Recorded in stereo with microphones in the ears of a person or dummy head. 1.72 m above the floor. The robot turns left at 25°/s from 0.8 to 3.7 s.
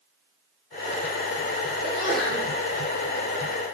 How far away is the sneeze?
About 1.2 m.